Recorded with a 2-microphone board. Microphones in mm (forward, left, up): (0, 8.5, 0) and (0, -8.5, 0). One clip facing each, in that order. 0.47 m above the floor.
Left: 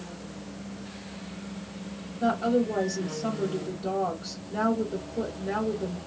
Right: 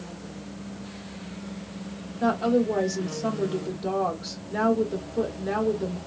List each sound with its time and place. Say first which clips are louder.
2.2 s a woman speaking: right 2 dB; 40° right (ahead or behind), 1.4 m